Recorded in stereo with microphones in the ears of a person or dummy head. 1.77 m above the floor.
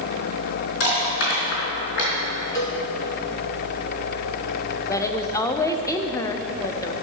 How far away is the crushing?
About 4 m.